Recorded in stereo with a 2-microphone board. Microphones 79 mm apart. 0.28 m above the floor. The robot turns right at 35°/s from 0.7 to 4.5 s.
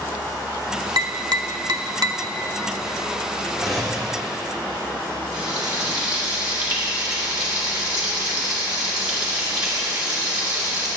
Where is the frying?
15° right (ahead or behind), 3 m.